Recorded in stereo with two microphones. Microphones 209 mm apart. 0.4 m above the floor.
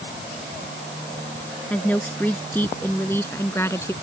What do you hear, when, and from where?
1.7 s a woman speaking: 5° left (ahead or behind); by 3.9 s 15° left (ahead or behind)